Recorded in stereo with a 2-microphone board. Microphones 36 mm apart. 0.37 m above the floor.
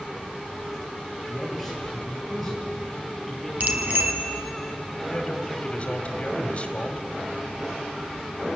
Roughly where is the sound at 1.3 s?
Centre.